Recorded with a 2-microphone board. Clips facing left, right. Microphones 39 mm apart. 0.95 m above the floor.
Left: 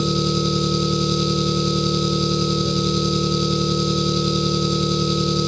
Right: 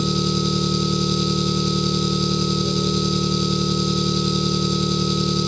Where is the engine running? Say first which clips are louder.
Left 1 dB; centre (ahead or behind), 2.5 m.